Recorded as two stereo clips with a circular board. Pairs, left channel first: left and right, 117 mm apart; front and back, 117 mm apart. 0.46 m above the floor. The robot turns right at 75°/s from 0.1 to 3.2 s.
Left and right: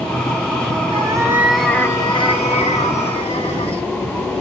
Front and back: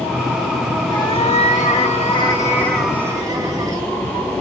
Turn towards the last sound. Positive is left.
turn(degrees=120)